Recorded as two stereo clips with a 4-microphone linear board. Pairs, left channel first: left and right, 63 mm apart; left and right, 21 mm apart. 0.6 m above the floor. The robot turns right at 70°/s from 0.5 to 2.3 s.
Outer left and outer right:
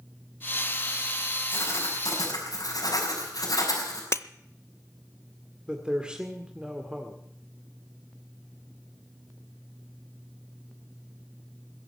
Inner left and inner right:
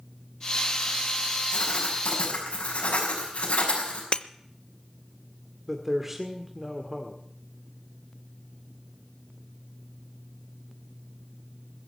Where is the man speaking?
15° right (ahead or behind), 1.8 m.